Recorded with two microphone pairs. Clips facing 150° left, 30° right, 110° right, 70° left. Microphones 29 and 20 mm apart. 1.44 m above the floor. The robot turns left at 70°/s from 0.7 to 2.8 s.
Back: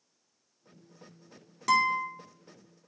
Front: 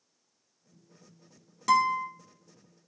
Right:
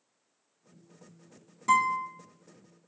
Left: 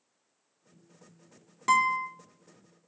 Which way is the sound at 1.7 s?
65° left.